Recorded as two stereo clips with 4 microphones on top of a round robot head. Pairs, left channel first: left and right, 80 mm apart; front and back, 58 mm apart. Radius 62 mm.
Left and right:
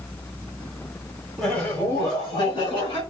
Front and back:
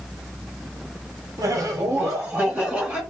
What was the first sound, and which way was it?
Laughter, 175° left.